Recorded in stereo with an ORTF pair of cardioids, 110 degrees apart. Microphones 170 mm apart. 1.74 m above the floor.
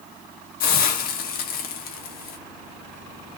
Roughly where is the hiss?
Ahead left.